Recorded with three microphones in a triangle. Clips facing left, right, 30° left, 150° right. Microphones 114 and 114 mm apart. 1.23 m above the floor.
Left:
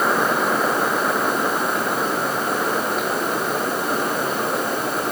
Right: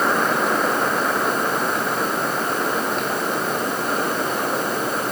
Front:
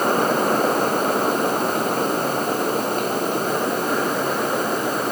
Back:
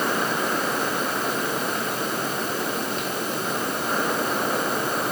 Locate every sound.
Only background noise.